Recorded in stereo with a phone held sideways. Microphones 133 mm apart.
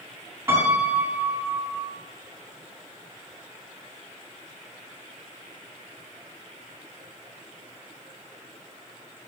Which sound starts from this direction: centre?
A piano, at 0.5 s.